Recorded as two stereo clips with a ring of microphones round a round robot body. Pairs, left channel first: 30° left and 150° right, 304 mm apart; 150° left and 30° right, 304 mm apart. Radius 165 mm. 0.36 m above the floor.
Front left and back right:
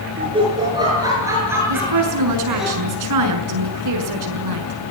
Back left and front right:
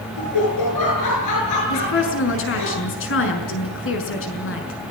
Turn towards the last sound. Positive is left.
turn(degrees=-165)